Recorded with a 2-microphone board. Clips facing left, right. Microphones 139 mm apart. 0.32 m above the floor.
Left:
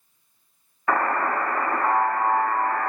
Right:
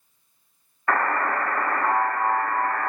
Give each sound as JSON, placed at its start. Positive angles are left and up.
{"t": 0.9, "sound": "a buzzer", "side_deg": 10, "distance_m": 0.8}